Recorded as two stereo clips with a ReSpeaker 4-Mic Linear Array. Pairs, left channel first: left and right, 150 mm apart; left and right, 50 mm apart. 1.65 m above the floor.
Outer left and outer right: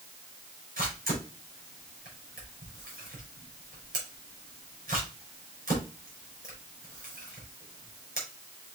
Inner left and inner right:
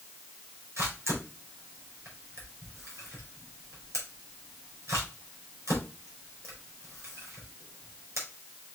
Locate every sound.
0.8 s a camera shutter: 75° right (ahead or behind), 4 m